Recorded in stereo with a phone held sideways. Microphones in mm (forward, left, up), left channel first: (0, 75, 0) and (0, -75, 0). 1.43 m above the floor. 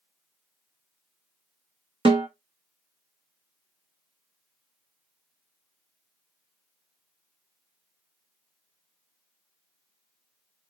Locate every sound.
2.0 s a snare drum: 35° right (ahead or behind), 1.1 m